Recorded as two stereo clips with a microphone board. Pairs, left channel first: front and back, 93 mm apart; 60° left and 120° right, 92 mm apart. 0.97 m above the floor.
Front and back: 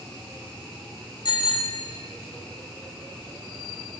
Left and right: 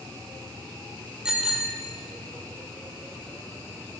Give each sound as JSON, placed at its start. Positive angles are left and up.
{"t": 1.2, "sound": "a bicycle bell", "azimuth_deg": -40, "distance_m": 2.5}